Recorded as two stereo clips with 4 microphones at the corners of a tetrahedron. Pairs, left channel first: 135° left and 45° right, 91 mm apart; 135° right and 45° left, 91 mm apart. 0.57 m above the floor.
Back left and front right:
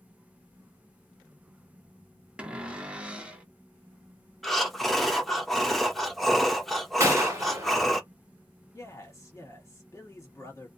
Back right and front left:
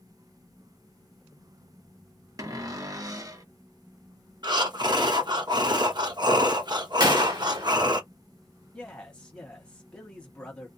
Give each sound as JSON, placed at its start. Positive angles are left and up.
{"t": 2.4, "sound": "a cupboard door", "azimuth_deg": 25, "distance_m": 0.8}
{"t": 4.4, "sound": "breathing", "azimuth_deg": 45, "distance_m": 0.8}
{"t": 7.0, "sound": "a gunshot", "azimuth_deg": 10, "distance_m": 1.1}
{"t": 8.7, "sound": "a man speaking", "azimuth_deg": 155, "distance_m": 1.3}